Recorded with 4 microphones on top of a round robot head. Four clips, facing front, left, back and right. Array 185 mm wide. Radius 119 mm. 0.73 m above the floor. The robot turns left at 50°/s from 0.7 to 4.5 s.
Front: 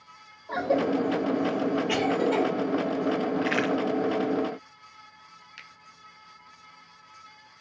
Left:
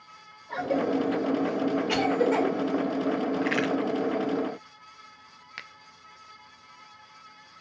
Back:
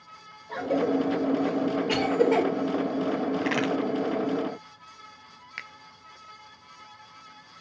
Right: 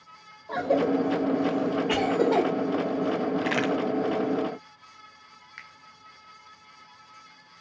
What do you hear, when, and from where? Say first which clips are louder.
0.5 s a cough: right 3 dB, front 1 dB; 40° right, 2.5 m; by 2.5 s 130° right, 2.5 m
3.4 s a crack: right 1 dB, even; 130° right, 2 m; by 3.7 s 145° right, 2 m
5.6 s a finger snap: left 3 dB, back 11 dB; 120° left, 0.6 m